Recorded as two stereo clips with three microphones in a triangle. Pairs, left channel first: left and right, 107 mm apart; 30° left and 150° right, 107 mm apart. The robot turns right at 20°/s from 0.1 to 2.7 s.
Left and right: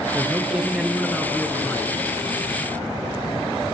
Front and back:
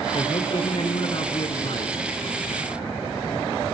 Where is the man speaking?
15° right, 2.5 m; by 2.0 s 20° left, 2.5 m.